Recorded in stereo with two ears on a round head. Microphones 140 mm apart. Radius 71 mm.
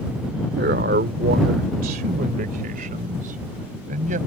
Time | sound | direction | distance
0.6 | a man speaking | 70° right (ahead or behind) | ?